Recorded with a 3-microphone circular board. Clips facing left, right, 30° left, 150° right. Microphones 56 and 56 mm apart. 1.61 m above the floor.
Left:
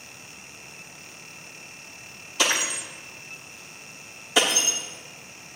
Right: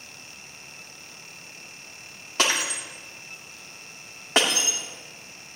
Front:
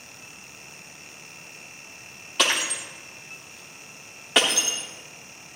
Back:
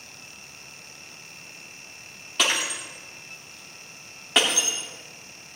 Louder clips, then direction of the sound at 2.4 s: Even, front 1 dB; 60° right.